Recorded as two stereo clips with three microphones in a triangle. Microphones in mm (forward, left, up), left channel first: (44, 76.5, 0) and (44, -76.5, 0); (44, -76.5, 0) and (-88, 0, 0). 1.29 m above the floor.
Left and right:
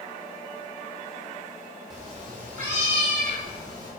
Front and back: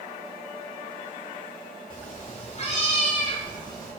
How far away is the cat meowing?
About 2 m.